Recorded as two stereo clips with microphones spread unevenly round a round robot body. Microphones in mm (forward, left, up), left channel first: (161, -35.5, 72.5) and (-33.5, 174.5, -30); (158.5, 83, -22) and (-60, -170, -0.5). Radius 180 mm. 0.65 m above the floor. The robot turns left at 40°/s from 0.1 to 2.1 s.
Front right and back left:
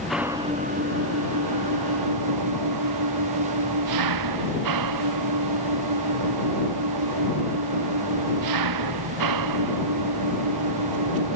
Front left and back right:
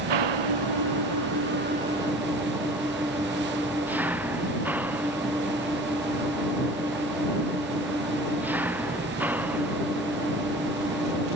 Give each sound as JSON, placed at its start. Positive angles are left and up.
{"t": 0.0, "sound": "an engine running", "azimuth_deg": -135}